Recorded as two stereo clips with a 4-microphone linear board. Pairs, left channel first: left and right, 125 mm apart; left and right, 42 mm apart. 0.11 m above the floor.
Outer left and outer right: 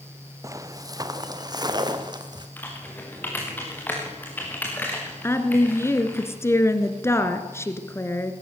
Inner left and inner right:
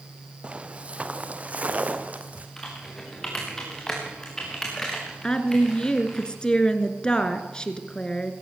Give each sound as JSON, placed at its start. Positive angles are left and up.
{"t": 0.4, "sound": "footsteps", "side_deg": -25, "distance_m": 1.2}
{"t": 2.6, "sound": "typing on a keyboard", "side_deg": 15, "distance_m": 6.0}
{"t": 5.2, "sound": "a woman speaking", "side_deg": 20, "distance_m": 1.6}